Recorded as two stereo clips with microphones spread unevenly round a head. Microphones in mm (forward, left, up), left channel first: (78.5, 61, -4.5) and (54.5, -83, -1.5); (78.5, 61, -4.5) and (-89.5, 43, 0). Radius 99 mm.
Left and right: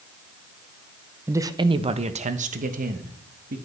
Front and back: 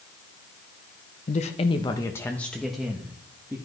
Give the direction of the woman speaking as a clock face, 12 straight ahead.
1 o'clock.